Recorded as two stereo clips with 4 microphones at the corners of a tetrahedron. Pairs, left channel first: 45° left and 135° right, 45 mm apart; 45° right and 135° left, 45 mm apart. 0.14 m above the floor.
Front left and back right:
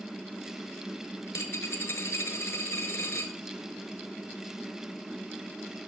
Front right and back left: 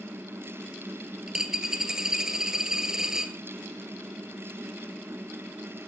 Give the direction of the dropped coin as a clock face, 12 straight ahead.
10 o'clock.